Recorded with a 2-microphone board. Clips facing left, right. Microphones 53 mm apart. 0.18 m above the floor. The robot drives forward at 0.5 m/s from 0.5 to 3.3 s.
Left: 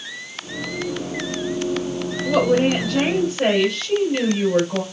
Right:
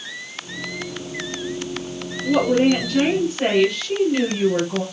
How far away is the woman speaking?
About 2.5 m.